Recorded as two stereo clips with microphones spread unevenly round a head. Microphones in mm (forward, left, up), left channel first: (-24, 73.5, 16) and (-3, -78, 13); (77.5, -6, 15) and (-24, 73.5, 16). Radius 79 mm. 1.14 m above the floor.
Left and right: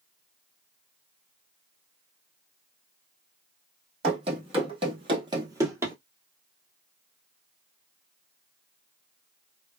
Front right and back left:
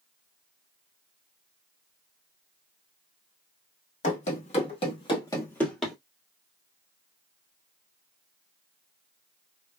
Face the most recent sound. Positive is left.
turn(degrees=-135)